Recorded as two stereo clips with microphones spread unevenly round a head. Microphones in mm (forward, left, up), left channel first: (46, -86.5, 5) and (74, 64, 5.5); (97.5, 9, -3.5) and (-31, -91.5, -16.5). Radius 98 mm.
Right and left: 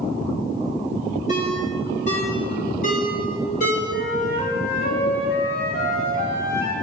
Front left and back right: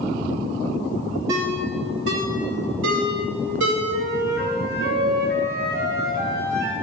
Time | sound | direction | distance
1.3 | a ringtone | 155° right | 2 m
3.9 | a flute | 130° right | 2 m